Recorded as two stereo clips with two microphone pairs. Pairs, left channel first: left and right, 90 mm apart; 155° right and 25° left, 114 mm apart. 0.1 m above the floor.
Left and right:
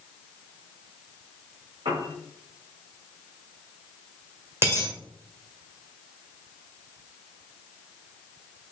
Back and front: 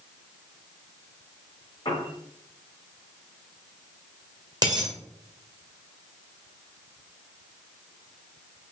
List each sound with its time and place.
1.9 s a piano: 105° right, 3 m
4.6 s a dropped coin: 30° right, 1.9 m